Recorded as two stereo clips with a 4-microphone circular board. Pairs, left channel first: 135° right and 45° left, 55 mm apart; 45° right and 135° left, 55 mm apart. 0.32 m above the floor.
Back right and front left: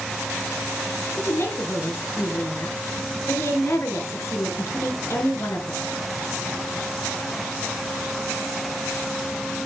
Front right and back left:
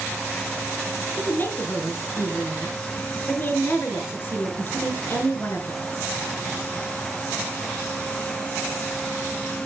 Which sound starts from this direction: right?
A woman speaking, at 1.2 s.